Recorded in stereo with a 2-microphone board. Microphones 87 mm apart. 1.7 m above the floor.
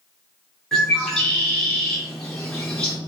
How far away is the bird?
About 1.1 m.